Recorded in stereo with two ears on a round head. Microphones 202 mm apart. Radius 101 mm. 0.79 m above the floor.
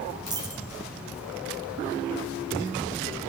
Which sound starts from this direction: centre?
A dropped coin, at 0.3 s.